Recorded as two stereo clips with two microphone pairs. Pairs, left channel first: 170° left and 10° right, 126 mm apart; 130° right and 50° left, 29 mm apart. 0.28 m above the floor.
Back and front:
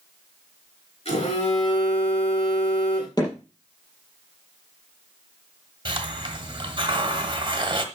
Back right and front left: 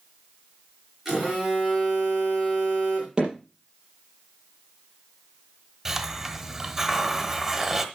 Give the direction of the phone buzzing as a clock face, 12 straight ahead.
8 o'clock.